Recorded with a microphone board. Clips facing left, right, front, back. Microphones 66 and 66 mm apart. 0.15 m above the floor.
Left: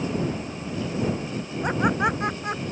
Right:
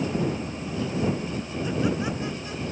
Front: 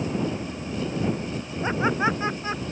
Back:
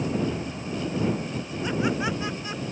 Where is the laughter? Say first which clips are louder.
Left 4 dB, front 3 dB; 60° left.